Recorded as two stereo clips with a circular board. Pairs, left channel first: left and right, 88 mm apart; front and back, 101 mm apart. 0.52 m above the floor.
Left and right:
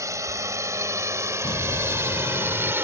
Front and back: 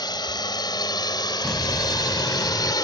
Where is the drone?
40° right; by 2.8 s 35° right.